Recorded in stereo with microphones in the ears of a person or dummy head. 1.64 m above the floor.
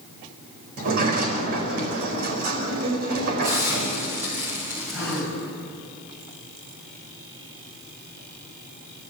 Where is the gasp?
Centre (ahead or behind), 7.5 m.